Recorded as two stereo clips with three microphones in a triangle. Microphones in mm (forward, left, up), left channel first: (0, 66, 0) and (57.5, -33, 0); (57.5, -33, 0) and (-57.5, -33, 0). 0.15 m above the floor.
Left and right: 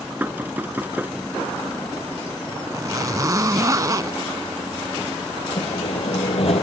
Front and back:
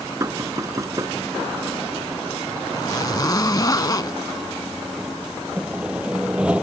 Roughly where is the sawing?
Left.